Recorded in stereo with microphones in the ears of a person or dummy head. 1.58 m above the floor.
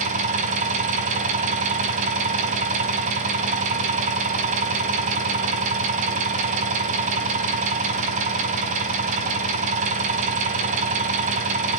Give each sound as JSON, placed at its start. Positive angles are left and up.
{"t": 0.0, "sound": "an engine running", "side_deg": -35, "distance_m": 3.5}